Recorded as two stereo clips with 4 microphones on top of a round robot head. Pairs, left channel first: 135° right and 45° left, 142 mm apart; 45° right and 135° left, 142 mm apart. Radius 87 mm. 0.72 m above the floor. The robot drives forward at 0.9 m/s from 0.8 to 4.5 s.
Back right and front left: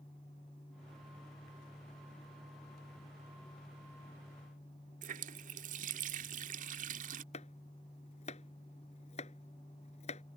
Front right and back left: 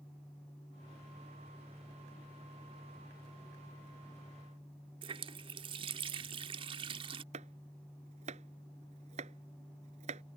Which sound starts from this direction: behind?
Chopping, at 7.3 s.